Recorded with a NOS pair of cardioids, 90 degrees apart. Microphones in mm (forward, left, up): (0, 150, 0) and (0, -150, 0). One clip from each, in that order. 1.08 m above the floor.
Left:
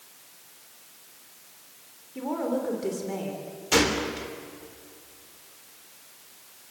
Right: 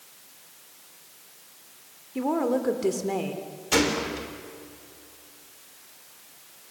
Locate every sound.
2.1 s a woman speaking: 40° right, 3.5 m
3.7 s a gunshot: 10° left, 3.5 m